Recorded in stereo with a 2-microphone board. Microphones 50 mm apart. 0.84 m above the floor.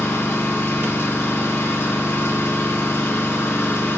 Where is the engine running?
60° left (ahead or behind), 4.5 m.